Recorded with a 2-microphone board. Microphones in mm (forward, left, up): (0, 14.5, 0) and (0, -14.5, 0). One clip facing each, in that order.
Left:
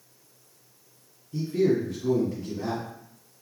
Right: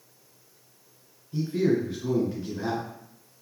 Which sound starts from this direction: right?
A man speaking, at 1.3 s.